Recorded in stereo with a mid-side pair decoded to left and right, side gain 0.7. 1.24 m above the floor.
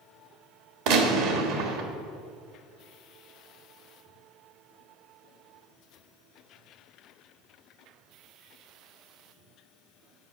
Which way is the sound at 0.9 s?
70° right.